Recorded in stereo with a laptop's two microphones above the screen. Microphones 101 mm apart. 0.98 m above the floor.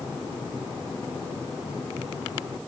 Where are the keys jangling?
I don't hear keys jangling.